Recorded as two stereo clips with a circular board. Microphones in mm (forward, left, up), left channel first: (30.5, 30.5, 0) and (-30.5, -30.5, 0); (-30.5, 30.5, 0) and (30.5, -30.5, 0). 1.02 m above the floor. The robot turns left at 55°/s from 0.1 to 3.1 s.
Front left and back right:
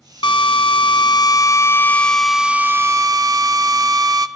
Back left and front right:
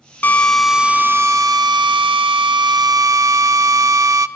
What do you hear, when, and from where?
0.2 s a drill: 65° left, 1.2 m; by 4.3 s 90° right, 1.2 m